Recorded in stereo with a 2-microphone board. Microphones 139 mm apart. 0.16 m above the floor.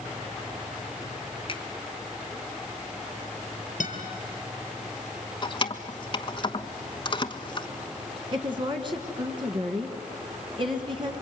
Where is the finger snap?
40° left (ahead or behind), 1.7 m.